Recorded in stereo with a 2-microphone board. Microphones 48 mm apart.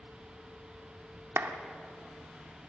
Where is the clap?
60° right (ahead or behind), 1.6 m.